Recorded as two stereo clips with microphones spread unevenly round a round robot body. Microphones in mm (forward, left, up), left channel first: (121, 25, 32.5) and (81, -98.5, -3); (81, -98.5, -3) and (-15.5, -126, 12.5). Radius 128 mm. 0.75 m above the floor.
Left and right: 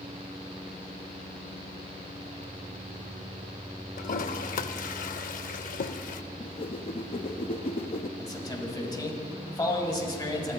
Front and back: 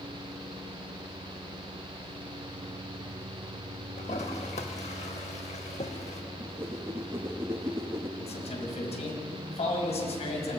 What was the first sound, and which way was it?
A toilet flushing, 70° left.